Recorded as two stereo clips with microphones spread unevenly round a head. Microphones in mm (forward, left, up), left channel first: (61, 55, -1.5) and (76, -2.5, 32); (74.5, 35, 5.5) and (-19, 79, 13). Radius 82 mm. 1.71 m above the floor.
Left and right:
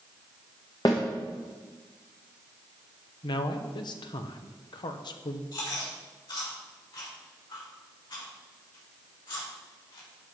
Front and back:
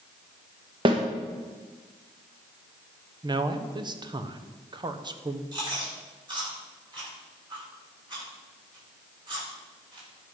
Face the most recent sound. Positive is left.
turn(degrees=110)